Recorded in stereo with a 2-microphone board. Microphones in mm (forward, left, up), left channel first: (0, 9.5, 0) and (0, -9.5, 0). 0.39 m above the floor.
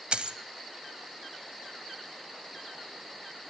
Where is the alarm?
No alarm in this recording.